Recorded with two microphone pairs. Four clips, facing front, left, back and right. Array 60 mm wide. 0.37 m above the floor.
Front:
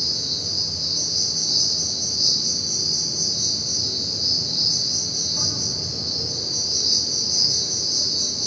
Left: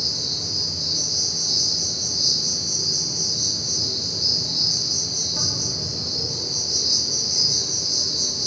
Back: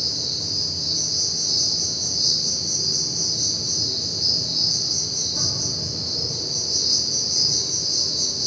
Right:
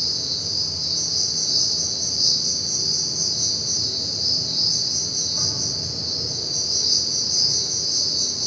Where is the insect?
90° left, 4.5 m.